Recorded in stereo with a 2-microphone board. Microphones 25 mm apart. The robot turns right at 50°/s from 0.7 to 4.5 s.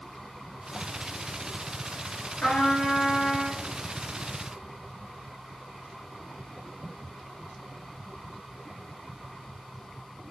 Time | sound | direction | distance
2.4 | a trumpet | 90° left | 2 m